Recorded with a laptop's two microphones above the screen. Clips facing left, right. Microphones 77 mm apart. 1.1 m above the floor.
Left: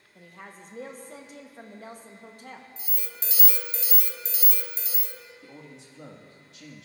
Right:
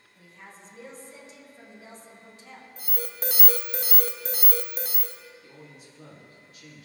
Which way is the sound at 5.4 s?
85° left.